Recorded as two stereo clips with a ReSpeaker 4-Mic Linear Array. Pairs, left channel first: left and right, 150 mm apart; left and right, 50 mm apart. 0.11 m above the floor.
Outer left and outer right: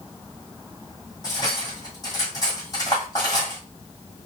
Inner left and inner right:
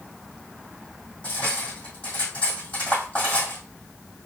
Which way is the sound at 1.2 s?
25° left (ahead or behind).